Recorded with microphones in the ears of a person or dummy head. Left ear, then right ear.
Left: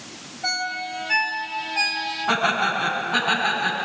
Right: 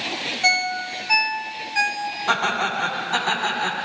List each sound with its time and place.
0.4 s a ringtone: 50° right (ahead or behind), 2 m
2.3 s laughter: 85° right, 8.5 m